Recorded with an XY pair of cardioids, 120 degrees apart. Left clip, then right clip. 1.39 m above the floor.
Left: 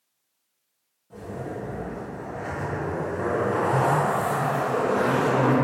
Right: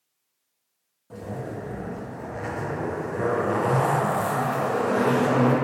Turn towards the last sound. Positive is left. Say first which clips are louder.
# even
turn(degrees=-55)